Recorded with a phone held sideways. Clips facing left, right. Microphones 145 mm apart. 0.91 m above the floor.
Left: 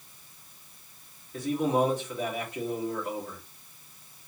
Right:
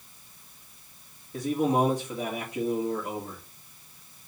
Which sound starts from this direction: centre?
A man speaking, at 1.3 s.